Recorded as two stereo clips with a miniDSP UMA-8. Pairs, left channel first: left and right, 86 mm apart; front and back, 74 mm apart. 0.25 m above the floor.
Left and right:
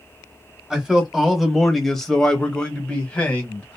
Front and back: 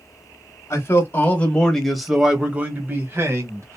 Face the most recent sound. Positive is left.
turn(degrees=155)